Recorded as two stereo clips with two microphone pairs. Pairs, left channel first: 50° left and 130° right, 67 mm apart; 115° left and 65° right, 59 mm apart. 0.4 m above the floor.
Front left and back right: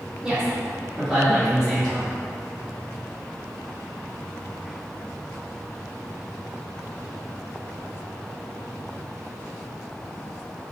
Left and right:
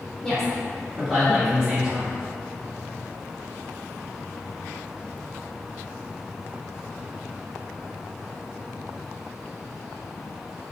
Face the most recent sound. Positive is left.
turn(degrees=-20)